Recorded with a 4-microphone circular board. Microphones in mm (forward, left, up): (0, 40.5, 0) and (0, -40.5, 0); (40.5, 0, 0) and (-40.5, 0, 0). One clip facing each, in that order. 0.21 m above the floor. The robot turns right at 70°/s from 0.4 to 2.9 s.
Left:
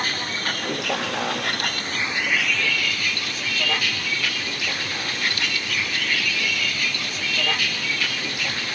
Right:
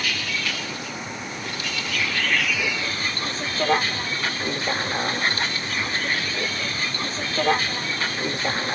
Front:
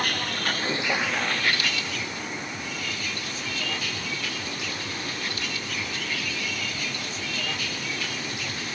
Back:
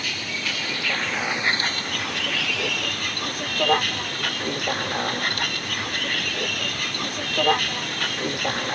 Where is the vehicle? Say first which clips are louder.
Left 1 dB, front 3 dB; 40° left; by 8.8 s 145° right.